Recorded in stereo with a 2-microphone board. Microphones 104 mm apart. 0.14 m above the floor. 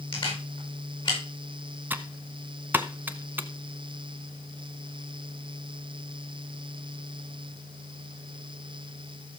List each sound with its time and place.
0.1 s a camera shutter: 55° left (ahead or behind), 7.5 m
1.9 s typing on a keyboard: 20° right (ahead or behind), 0.8 m